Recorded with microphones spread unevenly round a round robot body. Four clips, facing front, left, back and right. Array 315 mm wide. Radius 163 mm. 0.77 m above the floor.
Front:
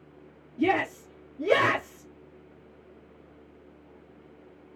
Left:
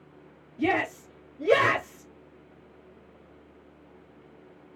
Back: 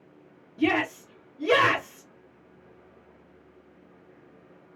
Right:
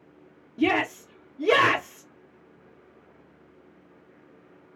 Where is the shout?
65° right, 2.0 m.